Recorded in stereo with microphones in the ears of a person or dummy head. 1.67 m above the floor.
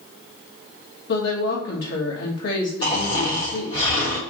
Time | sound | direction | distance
1.1 | a woman speaking | 55° left (ahead or behind) | 1.1 m
2.8 | snoring | 25° left (ahead or behind) | 1.6 m